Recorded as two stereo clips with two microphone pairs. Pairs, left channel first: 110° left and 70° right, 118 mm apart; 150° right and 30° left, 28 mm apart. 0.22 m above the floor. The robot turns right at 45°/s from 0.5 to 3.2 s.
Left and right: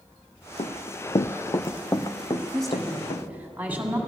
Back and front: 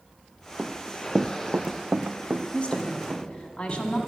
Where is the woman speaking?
170° right, 1.6 m; by 4.0 s 140° right, 1.6 m.